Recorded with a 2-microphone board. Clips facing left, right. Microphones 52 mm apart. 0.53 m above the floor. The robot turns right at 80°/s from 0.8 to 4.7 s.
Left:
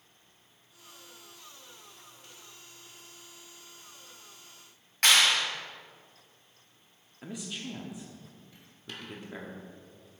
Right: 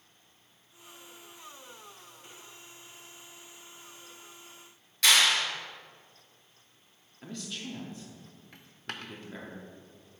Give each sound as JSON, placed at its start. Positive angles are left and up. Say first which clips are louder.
{"t": 5.0, "sound": "a clap", "louder": "even", "side_deg": 45, "distance_m": 2.5}
{"t": 7.2, "sound": "a man speaking", "louder": "left 1 dB", "side_deg": 15, "distance_m": 0.6}
{"t": 8.5, "sound": "a dropped coin", "louder": "right 5 dB", "side_deg": -60, "distance_m": 0.5}